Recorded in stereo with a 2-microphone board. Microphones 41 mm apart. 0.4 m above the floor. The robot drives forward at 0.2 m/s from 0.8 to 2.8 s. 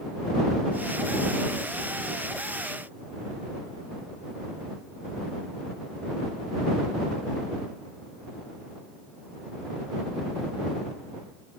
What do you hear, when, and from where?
Only background noise.